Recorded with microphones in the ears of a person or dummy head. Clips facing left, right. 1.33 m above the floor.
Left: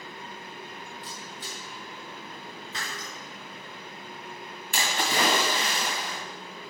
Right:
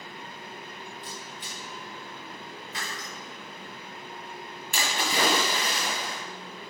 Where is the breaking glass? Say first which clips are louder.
Even; 65° left (ahead or behind), 3.5 m.